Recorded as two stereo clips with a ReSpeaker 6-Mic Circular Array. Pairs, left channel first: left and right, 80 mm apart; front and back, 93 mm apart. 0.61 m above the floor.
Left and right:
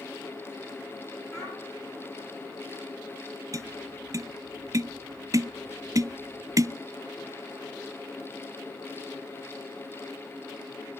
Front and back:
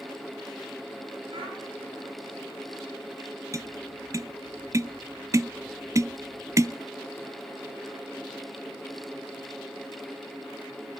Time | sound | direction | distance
1.3 | a child speaking | 145° left | 9 m
3.5 | tapping | 130° right | 0.5 m